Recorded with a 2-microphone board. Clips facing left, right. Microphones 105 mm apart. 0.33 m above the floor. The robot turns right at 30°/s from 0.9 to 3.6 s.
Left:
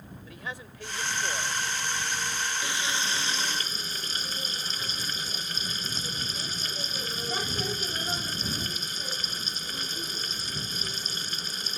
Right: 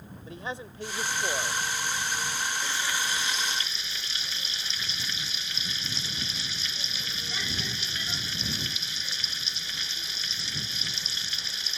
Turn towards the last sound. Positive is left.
turn(degrees=40)  # may be behind; listen again after turning